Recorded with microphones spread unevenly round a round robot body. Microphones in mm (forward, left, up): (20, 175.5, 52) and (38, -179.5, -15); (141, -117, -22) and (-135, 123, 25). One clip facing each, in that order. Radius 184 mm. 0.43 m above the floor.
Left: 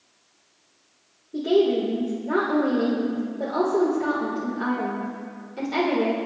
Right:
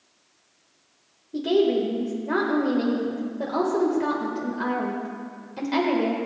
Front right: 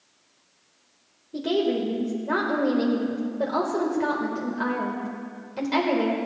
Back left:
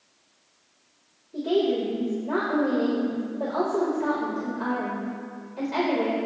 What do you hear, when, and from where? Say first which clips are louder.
1.3 s a woman speaking: left 1 dB, back left 1 dB; 35° right, 1.6 m